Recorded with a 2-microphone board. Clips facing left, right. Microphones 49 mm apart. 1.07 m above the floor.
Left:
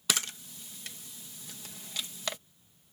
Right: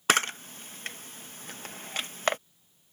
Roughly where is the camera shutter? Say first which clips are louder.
Right 9 dB; right.